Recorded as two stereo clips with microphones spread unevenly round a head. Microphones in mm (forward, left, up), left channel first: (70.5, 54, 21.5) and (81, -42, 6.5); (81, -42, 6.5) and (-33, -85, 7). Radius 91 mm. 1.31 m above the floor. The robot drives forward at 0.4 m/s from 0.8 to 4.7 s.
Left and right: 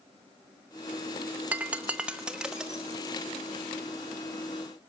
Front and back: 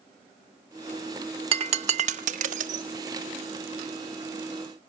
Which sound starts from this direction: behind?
Breaking glass, at 1.5 s.